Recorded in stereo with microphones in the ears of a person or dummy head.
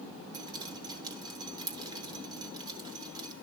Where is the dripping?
20° right (ahead or behind), 2 m.